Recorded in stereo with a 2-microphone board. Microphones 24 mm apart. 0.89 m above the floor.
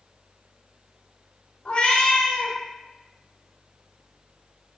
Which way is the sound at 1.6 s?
45° left (ahead or behind).